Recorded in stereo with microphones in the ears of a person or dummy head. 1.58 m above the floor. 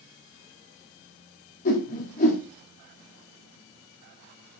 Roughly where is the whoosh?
Left.